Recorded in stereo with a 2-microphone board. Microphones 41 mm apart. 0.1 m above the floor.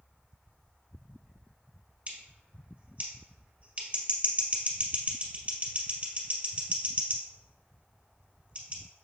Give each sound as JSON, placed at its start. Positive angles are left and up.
{"t": 2.1, "sound": "scissors", "side_deg": -35, "distance_m": 2.0}